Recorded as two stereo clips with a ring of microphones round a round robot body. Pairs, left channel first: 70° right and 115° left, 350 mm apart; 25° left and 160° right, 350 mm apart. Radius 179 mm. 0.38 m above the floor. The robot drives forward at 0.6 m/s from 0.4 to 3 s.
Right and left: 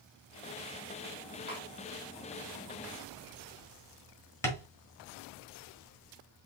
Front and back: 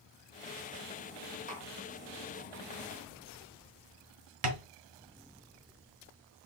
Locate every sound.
1.5 s tapping: 95° right, 2.0 m; by 1.7 s 100° right, 2.0 m
4.4 s tapping: 150° right, 1.2 m